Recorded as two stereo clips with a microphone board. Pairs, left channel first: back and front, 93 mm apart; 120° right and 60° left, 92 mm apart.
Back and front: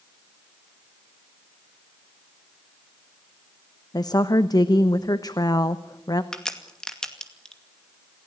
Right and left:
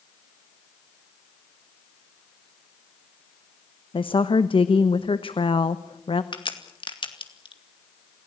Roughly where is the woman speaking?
Behind right.